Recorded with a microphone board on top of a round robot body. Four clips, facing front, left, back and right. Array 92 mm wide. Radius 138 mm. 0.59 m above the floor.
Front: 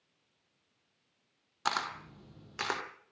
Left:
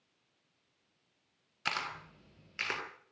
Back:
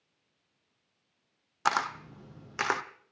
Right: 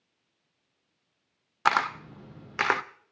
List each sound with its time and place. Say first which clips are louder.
1.6 s a camera shutter: right 13 dB, back 5 dB; 105° right, 0.5 m